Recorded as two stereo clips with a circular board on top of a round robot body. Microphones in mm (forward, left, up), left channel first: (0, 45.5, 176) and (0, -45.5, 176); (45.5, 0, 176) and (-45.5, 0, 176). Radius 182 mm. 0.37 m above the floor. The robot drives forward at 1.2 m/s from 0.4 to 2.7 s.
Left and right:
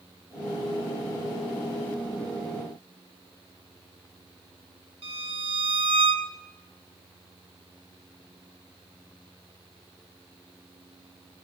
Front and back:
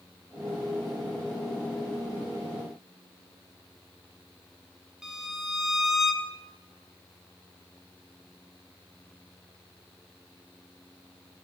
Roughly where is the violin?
Right.